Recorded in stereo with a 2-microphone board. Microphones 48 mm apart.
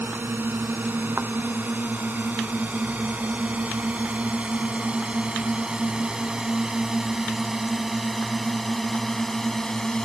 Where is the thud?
45° right (ahead or behind).